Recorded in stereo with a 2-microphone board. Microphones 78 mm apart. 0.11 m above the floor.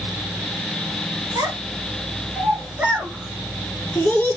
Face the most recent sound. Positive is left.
turn(degrees=25)  # may be behind; listen again after turning